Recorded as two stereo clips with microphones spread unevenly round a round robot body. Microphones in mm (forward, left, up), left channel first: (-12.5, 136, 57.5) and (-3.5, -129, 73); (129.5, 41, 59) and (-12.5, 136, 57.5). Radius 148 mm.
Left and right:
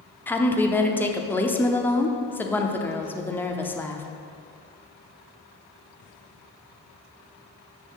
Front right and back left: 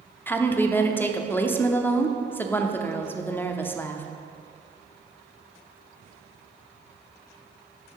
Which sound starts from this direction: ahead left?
A woman speaking, at 0.3 s.